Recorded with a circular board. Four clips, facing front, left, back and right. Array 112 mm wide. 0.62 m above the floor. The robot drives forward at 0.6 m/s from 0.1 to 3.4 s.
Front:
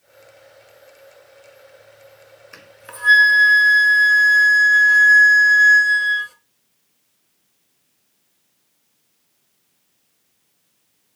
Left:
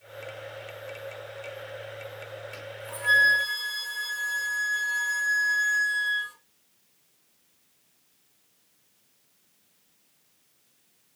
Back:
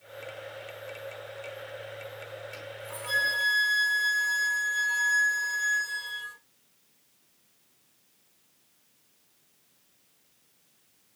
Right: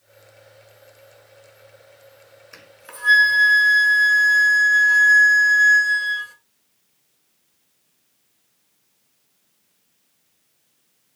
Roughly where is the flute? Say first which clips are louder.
Left 5 dB, back 1 dB; ahead.